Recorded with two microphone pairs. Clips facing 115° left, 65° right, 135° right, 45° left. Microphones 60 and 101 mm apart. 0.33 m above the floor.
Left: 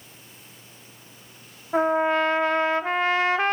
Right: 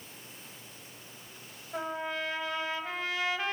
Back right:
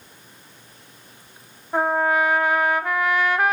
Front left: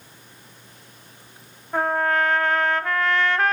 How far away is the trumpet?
About 0.6 m.